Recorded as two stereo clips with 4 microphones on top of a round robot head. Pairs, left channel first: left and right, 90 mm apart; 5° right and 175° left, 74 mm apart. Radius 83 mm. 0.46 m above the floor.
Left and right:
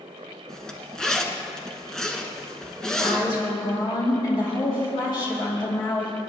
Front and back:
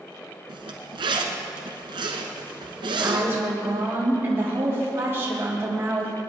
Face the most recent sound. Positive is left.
turn(degrees=120)